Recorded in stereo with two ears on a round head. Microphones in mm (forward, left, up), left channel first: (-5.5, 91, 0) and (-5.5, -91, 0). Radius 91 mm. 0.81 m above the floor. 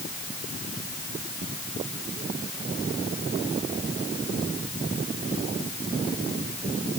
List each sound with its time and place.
Only background noise.